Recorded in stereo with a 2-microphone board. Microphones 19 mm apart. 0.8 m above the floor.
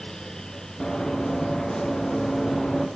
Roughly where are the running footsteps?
Left.